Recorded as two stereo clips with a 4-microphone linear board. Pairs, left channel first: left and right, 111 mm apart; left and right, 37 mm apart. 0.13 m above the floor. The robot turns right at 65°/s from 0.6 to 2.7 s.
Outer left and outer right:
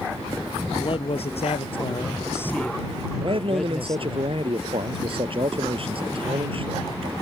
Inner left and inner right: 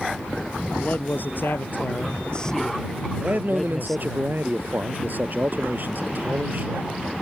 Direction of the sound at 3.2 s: 55° right (ahead or behind).